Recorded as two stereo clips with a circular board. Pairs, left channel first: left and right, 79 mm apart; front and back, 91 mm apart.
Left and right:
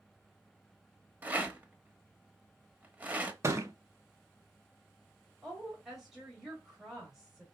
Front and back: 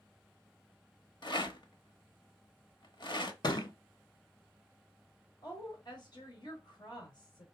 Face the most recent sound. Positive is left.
turn(degrees=-5)